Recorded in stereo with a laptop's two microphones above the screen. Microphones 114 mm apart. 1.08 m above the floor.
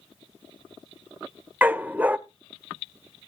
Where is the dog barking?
15° right (ahead or behind), 0.5 m.